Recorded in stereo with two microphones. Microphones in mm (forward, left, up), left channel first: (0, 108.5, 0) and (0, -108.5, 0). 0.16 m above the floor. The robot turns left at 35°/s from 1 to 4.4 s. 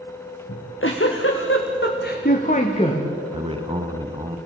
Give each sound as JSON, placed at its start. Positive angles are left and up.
{"t": 0.5, "sound": "a giggle", "azimuth_deg": 95, "distance_m": 3.5}
{"t": 3.3, "sound": "a man speaking", "side_deg": -25, "distance_m": 1.6}